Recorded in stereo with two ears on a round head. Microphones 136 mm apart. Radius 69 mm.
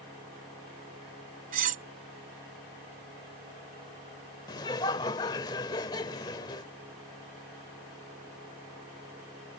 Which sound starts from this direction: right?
Cutlery clinking, at 1.5 s.